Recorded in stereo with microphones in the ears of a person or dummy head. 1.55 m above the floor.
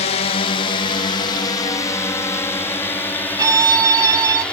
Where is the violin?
20° right (ahead or behind).